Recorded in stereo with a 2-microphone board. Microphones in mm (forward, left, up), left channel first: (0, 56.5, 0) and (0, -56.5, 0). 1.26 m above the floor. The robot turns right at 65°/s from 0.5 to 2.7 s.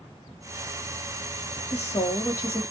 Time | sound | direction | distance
1.7 | a woman speaking | 110° left | 1.4 m